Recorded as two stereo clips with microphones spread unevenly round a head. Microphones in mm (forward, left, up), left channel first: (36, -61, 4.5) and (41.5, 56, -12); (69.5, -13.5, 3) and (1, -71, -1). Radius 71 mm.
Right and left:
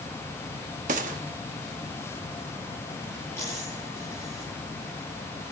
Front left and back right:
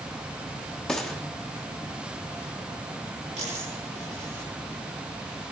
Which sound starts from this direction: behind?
A dropped coin, at 3.4 s.